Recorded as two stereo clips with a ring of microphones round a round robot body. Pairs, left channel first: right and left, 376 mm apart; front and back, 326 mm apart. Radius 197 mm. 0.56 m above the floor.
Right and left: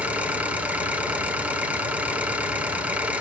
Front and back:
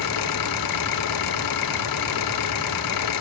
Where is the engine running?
5° left, 1.7 m.